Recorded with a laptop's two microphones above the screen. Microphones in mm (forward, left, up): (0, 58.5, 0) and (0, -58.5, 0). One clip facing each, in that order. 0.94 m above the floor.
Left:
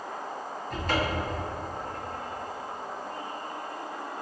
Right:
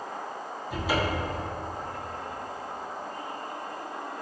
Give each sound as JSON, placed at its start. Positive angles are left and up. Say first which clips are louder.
{"t": 0.7, "sound": "a cupboard door", "louder": "right 1 dB", "side_deg": -5, "distance_m": 0.7}